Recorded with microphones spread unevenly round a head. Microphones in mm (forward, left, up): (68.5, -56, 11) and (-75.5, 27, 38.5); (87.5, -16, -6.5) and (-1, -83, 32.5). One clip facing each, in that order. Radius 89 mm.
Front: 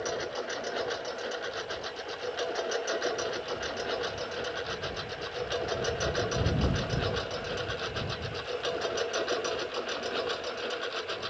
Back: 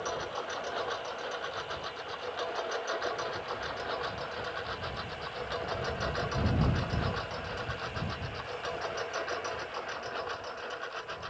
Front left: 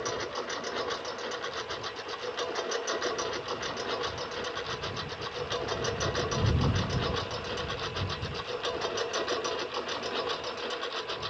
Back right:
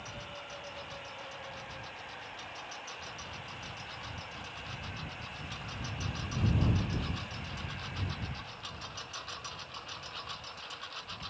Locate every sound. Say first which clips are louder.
0.0 s a lawn mower: front 3 dB, front left 12 dB; 40° left; by 11.3 s 20° left